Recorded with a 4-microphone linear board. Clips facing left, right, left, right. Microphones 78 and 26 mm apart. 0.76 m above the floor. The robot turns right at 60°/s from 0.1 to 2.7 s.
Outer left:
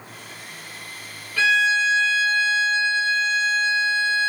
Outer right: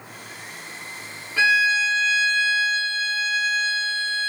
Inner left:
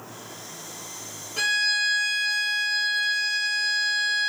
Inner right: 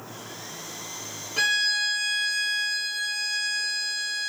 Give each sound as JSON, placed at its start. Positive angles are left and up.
{"t": 1.4, "sound": "a violin", "azimuth_deg": -35, "distance_m": 0.6}